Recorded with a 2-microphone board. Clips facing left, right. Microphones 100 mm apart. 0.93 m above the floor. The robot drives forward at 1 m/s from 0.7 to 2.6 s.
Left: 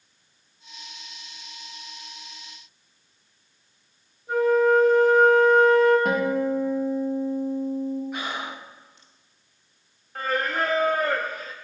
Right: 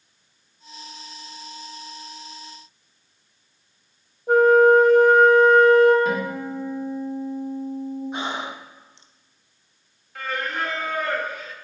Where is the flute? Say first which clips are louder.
Right 6 dB; 65° right (ahead or behind), 1.1 m.